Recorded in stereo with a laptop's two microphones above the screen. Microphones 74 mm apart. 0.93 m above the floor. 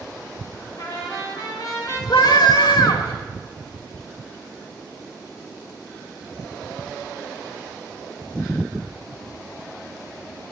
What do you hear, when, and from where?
0.8 s a trumpet: 55° left (ahead or behind), 4.5 m
2.1 s a scream: 80° left, 2 m